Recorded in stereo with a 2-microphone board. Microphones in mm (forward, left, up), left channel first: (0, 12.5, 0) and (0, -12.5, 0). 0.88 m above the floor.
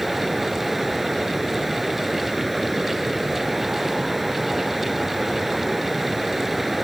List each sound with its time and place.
0.0 s running water: 5° right (ahead or behind)